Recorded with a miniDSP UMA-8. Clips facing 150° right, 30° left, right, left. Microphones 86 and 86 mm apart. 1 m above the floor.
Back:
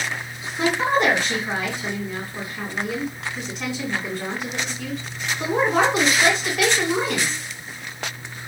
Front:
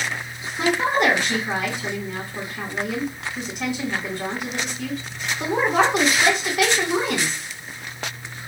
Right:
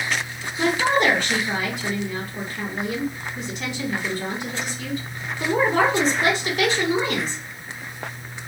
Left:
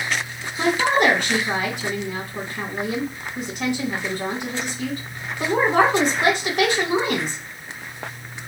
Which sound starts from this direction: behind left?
A woman speaking, at 0.6 s.